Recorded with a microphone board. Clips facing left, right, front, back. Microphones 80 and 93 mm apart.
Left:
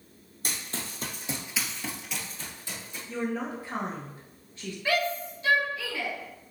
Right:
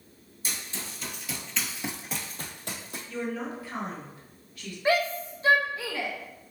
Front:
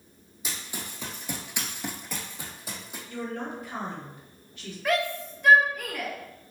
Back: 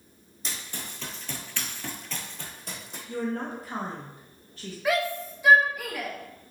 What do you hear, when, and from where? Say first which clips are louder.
0.4 s running footsteps: left 2 dB, front 1 dB; 80° left, 1.6 m; by 3.0 s 85° right, 1.7 m
3.1 s a woman speaking: left 2 dB, back 3 dB; 140° left, 1.1 m
4.8 s a shout: right 3 dB, back 1 dB; 100° right, 1.0 m